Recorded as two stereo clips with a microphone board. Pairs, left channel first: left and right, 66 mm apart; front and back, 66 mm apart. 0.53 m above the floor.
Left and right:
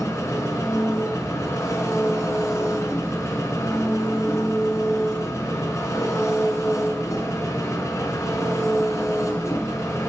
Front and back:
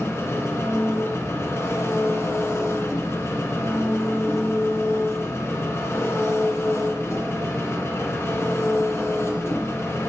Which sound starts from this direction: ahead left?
An engine running, at 0.0 s.